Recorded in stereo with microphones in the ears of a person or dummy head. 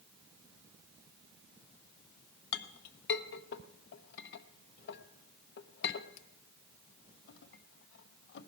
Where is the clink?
65° left (ahead or behind), 0.7 m.